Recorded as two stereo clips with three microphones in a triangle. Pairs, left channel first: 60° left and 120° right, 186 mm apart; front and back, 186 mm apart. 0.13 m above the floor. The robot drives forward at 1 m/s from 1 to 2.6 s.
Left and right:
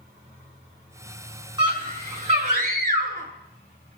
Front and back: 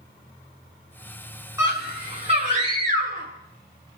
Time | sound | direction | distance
1.6 | a scream | 130° right | 1.7 m